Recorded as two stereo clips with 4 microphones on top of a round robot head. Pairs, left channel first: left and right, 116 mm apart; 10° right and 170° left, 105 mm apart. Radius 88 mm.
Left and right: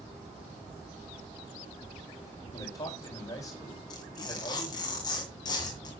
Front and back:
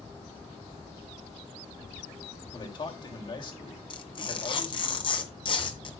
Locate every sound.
2.5 s a man speaking: 25° left, 3.5 m
3.9 s tearing paper: 30° left, 2 m